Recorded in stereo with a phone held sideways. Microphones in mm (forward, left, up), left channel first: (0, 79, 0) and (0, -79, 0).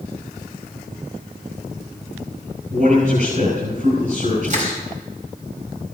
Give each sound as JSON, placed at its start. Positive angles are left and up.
{"t": 2.7, "sound": "a man speaking", "side_deg": -55, "distance_m": 6.0}
{"t": 4.4, "sound": "crushing", "side_deg": -45, "distance_m": 4.5}